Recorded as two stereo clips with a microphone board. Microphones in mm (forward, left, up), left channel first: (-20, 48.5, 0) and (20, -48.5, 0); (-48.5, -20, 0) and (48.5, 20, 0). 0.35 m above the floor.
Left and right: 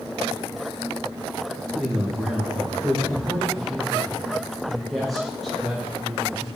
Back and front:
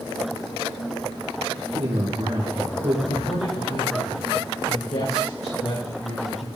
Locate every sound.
1.7 s a man speaking: 20° left, 4.5 m
3.1 s a man speaking: 155° right, 8.5 m